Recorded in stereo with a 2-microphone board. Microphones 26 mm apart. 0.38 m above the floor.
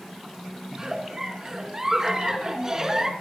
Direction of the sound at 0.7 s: 25° right (ahead or behind).